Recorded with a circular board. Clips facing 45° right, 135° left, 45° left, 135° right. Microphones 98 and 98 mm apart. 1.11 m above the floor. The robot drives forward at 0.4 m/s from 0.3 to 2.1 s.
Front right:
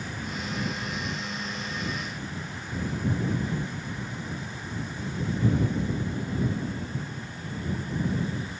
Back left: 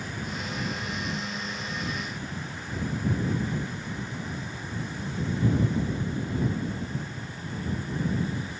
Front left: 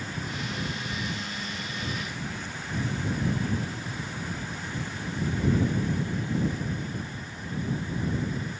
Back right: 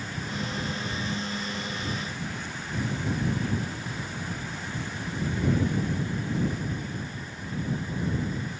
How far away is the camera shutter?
No camera shutter in this recording.